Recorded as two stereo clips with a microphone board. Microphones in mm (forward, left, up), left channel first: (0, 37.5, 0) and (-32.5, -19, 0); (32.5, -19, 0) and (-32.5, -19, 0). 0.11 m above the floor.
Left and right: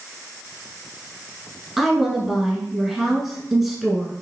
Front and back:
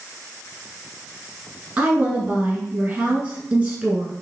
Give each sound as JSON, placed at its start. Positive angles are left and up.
{"t": 1.8, "sound": "a woman speaking", "azimuth_deg": 155, "distance_m": 1.2}